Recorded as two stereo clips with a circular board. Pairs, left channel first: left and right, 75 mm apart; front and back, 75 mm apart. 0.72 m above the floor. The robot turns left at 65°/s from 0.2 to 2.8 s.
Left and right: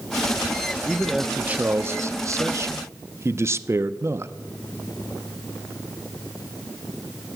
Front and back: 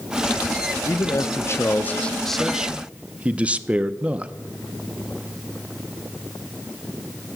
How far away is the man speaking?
About 0.6 m.